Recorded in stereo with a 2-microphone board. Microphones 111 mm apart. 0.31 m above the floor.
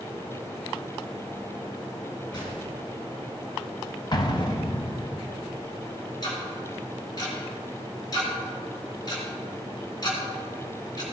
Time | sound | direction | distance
2.3 | a gunshot | 40° left (ahead or behind) | 3 m
4.1 | an explosion | 40° left (ahead or behind) | 0.8 m
6.2 | ticking | 40° left (ahead or behind) | 3 m